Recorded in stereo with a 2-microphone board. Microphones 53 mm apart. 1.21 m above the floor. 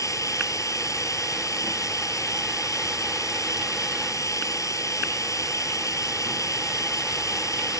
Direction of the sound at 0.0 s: 85° left.